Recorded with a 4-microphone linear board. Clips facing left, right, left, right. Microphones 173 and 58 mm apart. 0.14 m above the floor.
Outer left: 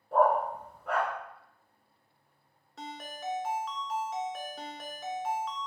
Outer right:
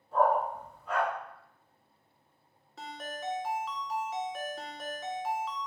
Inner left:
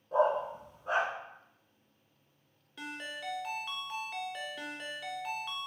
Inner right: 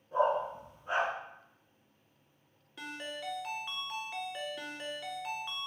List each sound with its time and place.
0.1 s a dog barking: 65° left (ahead or behind), 1.9 m
2.8 s a ringtone: centre (ahead or behind), 0.6 m